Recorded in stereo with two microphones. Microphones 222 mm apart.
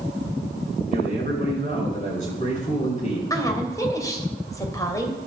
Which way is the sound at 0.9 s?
35° left (ahead or behind).